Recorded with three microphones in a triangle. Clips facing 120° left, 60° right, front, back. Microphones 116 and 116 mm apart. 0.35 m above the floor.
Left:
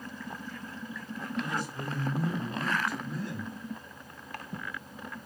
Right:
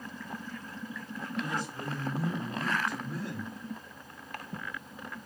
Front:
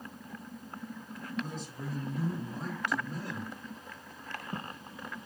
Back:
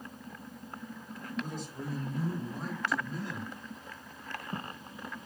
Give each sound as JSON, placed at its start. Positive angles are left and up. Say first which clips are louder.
{"t": 1.4, "sound": "a man speaking", "louder": "even, back 1 dB", "azimuth_deg": 155, "distance_m": 2.0}